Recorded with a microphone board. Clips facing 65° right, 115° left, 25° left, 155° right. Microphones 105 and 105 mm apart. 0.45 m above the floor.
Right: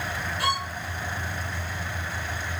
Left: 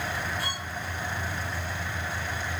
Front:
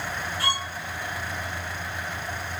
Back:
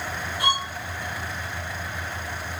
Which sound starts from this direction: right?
A violin, at 0.4 s.